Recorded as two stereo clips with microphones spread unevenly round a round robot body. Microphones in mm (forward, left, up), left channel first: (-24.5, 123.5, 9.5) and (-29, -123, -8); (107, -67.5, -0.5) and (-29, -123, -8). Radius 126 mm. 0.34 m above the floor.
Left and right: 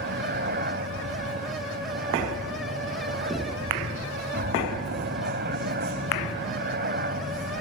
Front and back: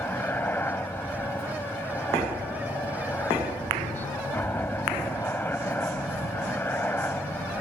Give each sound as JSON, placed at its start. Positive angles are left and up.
{"t": 0.0, "sound": "a helicopter", "azimuth_deg": -50}